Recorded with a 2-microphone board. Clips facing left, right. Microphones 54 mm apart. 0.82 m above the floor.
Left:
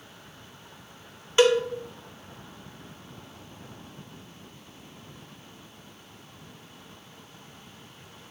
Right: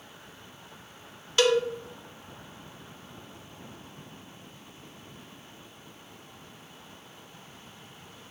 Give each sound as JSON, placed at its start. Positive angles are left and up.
{"t": 1.4, "sound": "a cowbell", "side_deg": 25, "distance_m": 0.5}